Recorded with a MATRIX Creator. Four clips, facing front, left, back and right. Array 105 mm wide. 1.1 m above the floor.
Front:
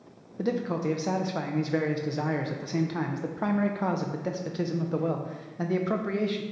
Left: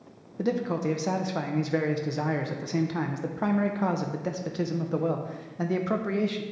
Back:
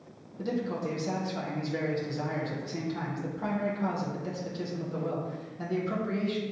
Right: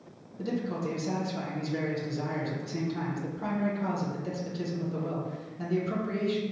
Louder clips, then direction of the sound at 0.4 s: Left 5 dB, front 3 dB; 55° left.